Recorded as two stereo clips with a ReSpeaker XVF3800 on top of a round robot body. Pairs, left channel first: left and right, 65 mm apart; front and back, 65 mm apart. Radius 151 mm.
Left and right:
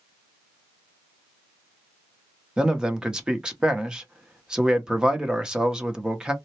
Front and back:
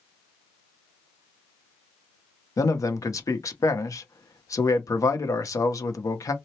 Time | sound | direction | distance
2.6 | a man speaking | 15° right | 1.0 m